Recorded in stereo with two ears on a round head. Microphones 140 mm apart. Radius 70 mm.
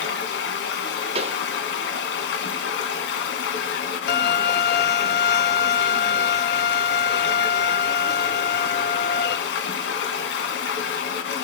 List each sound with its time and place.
0.0 s running water: 85° left, 1.5 m
1.1 s a pop: 40° right (ahead or behind), 0.6 m
4.1 s a violin: 70° left (ahead or behind), 0.6 m